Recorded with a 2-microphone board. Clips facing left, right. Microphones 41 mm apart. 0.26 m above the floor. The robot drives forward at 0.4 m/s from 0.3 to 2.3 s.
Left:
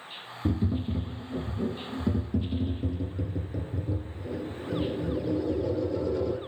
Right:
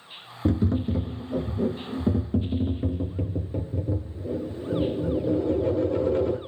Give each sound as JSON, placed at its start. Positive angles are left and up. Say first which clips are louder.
{"t": 0.5, "sound": "tapping", "louder": "right 5 dB", "side_deg": -70, "distance_m": 0.5}